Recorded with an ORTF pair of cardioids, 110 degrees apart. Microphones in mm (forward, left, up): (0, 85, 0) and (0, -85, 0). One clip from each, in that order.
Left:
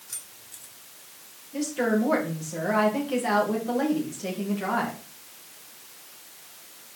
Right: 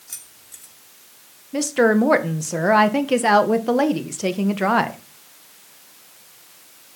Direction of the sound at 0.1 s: 30° right.